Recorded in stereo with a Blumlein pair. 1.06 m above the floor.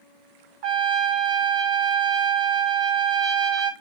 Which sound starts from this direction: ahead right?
A trumpet, at 0.6 s.